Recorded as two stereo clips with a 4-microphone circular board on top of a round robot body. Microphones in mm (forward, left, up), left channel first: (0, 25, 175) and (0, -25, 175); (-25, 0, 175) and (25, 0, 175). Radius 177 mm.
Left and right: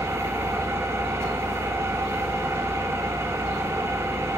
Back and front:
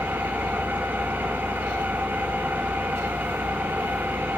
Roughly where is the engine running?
Ahead right.